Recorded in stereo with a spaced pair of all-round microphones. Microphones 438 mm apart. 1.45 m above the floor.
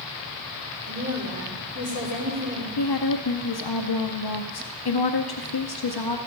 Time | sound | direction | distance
0.9 | a woman speaking | 45° right (ahead or behind) | 4 m
2.8 | a woman speaking | 60° left (ahead or behind) | 0.7 m